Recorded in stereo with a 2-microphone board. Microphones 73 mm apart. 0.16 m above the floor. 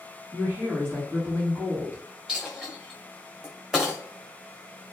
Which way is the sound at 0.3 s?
30° right (ahead or behind).